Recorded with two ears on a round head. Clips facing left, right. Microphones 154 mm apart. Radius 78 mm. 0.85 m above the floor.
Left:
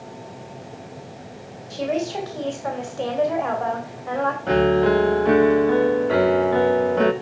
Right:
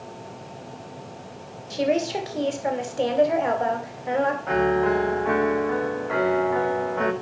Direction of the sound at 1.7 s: 25° right (ahead or behind).